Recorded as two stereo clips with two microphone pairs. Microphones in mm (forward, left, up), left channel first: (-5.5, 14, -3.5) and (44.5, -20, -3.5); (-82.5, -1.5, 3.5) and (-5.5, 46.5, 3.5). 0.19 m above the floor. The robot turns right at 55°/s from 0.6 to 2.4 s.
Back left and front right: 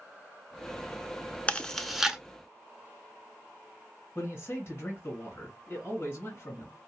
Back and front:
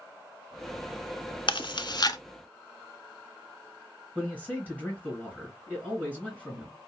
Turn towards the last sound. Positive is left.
turn(degrees=100)